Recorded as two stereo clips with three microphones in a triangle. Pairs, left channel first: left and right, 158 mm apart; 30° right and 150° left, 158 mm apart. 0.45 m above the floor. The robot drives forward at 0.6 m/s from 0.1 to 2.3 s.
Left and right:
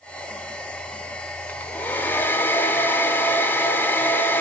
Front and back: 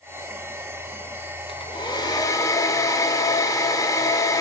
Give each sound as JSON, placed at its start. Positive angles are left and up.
{"t": 1.5, "sound": "a hair dryer", "azimuth_deg": 15, "distance_m": 1.6}